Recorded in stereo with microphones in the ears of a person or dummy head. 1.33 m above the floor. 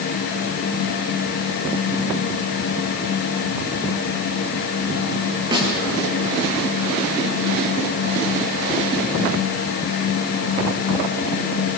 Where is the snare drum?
25° right (ahead or behind), 6 m.